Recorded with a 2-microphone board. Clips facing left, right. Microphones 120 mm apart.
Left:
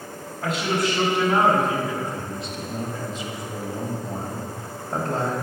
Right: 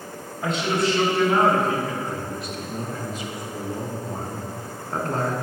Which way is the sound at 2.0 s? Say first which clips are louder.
Right 1 dB; 30° left (ahead or behind).